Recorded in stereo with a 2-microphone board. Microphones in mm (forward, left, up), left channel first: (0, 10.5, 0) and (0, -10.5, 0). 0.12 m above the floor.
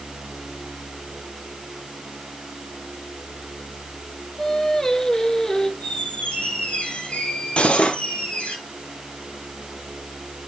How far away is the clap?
No clap in this recording.